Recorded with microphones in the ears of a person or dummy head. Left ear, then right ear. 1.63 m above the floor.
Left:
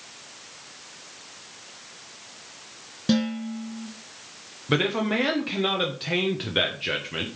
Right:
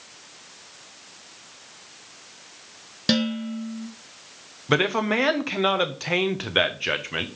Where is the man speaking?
35° right (ahead or behind), 1.0 m.